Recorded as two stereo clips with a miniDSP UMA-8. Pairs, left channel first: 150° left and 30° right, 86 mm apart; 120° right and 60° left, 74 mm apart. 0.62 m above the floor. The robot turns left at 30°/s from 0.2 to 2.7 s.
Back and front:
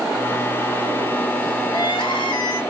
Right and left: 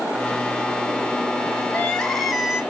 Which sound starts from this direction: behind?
Crying, at 1.7 s.